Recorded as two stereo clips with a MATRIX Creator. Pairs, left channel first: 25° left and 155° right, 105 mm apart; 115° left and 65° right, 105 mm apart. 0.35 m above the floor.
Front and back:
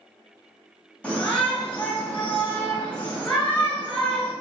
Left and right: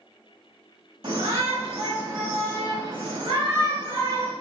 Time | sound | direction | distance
1.0 | a shout | 55° right | 2 m